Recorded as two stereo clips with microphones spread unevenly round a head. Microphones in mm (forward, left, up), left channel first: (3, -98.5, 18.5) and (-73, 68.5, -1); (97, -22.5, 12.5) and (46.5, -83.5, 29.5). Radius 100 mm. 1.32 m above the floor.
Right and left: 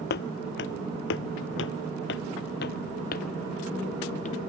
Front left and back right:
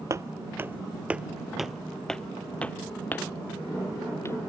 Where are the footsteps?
90° right; by 4.4 s 10° right.